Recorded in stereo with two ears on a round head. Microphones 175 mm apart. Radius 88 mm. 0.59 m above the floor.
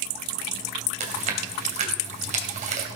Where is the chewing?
40° right (ahead or behind), 3 m.